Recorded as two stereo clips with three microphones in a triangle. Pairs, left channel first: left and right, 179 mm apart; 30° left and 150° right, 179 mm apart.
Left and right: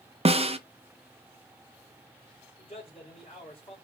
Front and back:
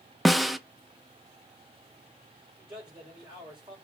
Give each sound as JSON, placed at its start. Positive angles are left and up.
{"t": 0.2, "sound": "a snare drum", "azimuth_deg": -60, "distance_m": 0.5}
{"t": 2.6, "sound": "a man speaking", "azimuth_deg": 145, "distance_m": 4.0}